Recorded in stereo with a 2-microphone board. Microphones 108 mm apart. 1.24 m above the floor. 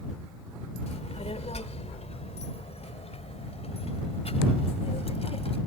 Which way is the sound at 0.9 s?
80° left.